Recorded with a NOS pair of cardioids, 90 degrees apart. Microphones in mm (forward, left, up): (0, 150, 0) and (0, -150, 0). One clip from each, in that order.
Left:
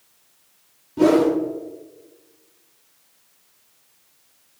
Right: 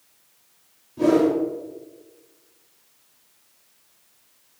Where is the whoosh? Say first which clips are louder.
Left 2 dB; 35° left, 0.6 m.